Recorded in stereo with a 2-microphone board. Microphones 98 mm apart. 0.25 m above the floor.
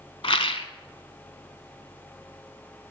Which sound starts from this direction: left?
A rattle, at 0.2 s.